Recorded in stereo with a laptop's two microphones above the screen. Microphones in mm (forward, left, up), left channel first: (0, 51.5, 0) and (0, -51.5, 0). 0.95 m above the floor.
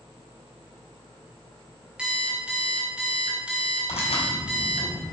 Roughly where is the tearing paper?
Left.